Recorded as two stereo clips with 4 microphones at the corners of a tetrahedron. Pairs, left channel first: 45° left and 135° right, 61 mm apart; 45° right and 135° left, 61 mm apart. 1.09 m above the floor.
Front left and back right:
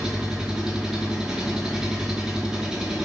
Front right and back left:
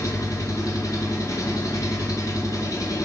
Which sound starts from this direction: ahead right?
An engine running, at 0.0 s.